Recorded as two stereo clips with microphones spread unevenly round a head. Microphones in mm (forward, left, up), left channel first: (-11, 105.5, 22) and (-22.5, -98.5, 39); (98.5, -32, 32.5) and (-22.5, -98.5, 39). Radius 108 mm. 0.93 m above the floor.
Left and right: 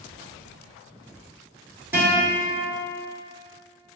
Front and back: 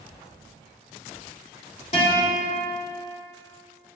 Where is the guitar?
15° right, 1.9 m.